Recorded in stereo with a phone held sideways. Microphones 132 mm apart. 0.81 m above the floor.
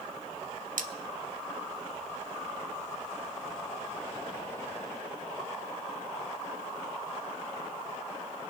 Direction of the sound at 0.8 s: 80° right.